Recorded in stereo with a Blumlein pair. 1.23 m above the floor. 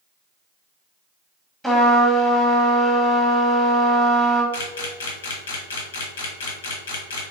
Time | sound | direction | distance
1.6 | a trumpet | 5° right | 1.5 m
4.5 | a camera shutter | 60° left | 0.9 m